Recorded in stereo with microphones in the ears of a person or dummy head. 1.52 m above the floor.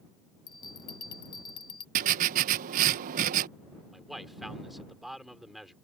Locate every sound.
0.5 s a bell: 20° left (ahead or behind)
1.9 s writing: 50° right (ahead or behind)
3.9 s a man speaking: 5° right (ahead or behind)